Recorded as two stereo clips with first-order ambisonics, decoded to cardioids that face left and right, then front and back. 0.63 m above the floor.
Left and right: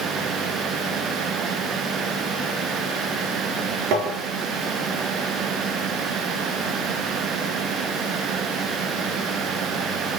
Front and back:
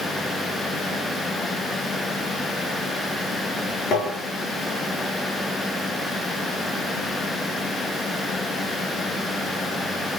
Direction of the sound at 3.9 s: 60° right.